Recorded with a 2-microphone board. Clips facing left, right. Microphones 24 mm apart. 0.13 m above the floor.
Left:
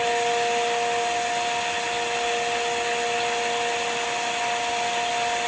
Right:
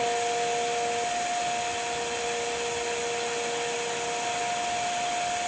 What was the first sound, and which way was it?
Only background noise.